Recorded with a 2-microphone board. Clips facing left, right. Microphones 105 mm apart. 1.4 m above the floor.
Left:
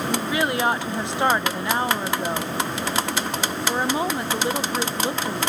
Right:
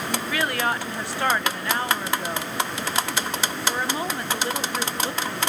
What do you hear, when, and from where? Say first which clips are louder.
0.1 s a woman speaking: left 3 dB; 20° left (ahead or behind), 0.9 m